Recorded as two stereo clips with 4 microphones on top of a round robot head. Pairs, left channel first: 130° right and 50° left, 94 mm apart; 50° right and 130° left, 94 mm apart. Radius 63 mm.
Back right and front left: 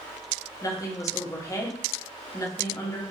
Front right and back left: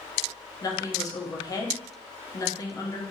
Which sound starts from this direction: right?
A woman speaking, at 0.6 s.